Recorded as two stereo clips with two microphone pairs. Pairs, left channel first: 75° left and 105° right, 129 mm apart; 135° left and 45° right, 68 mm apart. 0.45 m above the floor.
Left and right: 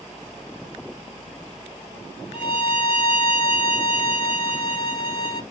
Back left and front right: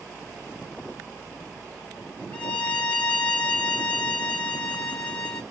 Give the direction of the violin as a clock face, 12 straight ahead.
10 o'clock.